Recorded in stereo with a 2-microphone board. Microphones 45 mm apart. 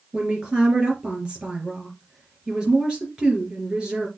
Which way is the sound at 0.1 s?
20° right (ahead or behind).